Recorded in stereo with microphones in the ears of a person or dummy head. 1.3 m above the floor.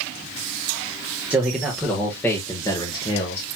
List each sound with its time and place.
1.3 s a man speaking: 10° right (ahead or behind), 1.4 m; by 3.5 s 40° left (ahead or behind), 1.5 m